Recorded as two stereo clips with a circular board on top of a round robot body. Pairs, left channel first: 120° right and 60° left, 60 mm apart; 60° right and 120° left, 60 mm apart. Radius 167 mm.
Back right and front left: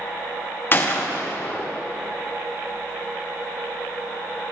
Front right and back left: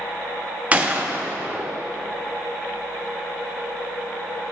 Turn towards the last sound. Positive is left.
turn(degrees=-175)